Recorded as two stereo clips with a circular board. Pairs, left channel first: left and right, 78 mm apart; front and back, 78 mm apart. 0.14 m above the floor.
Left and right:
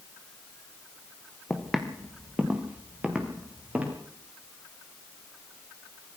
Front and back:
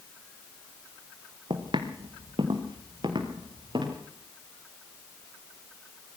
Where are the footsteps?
175° left, 2.5 m; by 4.0 s 165° right, 6.5 m.